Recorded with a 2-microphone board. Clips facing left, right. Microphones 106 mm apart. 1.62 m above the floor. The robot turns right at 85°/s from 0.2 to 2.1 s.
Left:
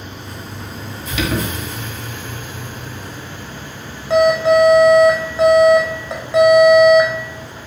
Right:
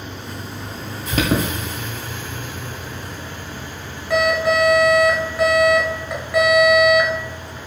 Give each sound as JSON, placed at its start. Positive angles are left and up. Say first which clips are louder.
{"t": 1.1, "sound": "an alarm", "louder": "right 2 dB", "side_deg": -50, "distance_m": 1.6}